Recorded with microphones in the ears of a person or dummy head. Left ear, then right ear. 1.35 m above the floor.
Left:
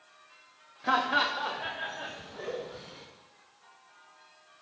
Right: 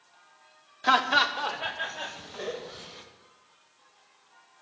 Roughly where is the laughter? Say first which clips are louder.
Right 4 dB; right.